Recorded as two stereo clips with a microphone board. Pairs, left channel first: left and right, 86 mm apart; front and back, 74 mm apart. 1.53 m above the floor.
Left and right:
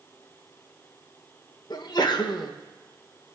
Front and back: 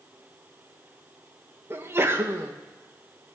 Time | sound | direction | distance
1.7 | a sneeze | 125° left | 1.5 m